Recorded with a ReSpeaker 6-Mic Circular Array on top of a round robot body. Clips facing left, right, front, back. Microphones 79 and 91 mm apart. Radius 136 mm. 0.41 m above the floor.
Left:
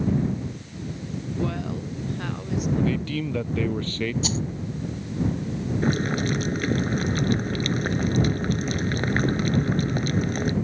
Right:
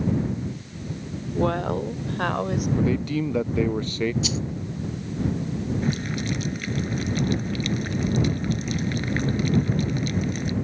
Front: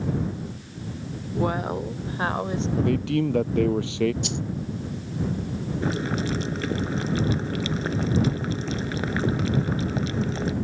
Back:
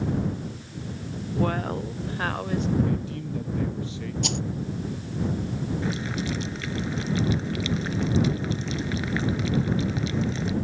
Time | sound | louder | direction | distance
1.4 | a woman speaking | right 7 dB, front 1 dB | 75° right | ?
2.8 | a man speaking | right 3 dB, front 4 dB | 15° right | ?
4.2 | a rattle | even, back 1 dB | 145° left | ?
5.8 | boiling | left 3 dB, front 3 dB | 45° left | ?